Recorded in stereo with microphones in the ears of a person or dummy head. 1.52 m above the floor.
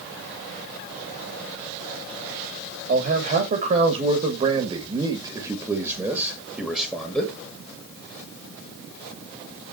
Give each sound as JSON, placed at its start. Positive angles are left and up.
{"t": 2.9, "sound": "a man speaking", "side_deg": -50, "distance_m": 3.0}